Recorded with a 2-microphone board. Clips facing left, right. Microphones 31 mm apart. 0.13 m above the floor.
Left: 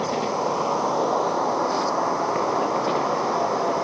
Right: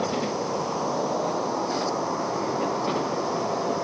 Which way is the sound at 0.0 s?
45° left (ahead or behind).